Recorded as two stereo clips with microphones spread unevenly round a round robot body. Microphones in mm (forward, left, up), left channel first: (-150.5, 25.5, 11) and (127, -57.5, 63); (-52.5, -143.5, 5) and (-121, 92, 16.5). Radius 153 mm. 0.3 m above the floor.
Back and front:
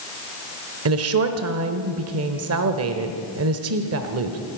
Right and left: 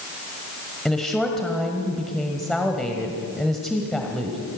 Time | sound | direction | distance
0.8 | a woman speaking | 10° left | 1.2 m